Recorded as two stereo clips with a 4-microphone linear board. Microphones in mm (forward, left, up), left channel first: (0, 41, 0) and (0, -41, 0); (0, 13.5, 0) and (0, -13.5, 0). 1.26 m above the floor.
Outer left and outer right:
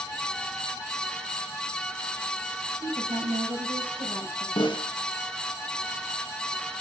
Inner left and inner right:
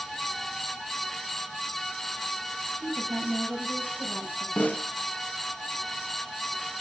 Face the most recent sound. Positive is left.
turn(degrees=85)